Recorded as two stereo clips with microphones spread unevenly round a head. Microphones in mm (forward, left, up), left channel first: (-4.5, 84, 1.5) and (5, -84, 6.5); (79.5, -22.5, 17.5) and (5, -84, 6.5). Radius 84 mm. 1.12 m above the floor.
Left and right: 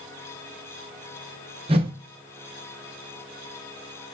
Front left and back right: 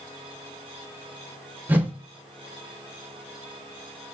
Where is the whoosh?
70° right, 0.6 m.